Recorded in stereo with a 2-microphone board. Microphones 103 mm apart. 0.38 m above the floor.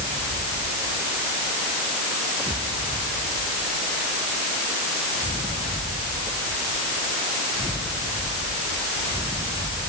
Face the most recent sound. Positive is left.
No sound to turn to.